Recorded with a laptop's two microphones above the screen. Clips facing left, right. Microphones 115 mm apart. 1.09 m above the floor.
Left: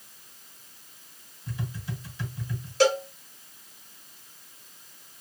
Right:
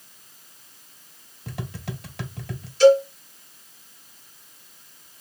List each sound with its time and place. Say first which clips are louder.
1.5 s tapping: right 2 dB; 65° right (ahead or behind), 0.5 m
2.8 s a cowbell: right 9 dB; 70° left (ahead or behind), 1.9 m